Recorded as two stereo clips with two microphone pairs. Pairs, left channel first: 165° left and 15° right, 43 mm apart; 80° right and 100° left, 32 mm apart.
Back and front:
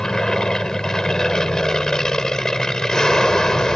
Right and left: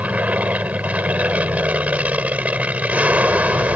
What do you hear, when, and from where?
0.0 s an aircraft: 90° left